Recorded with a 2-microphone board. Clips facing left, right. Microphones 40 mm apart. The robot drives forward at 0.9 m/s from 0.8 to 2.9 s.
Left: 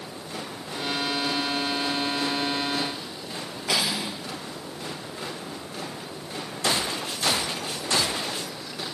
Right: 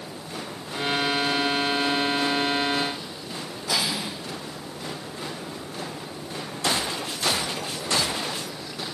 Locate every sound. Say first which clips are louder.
3.7 s cutlery clinking: left 1 dB; 75° left (ahead or behind), 4 m